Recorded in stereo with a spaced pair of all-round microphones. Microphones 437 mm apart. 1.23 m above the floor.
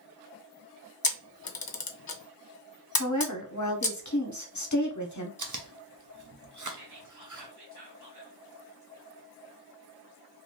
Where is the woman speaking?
40° left (ahead or behind), 0.8 m.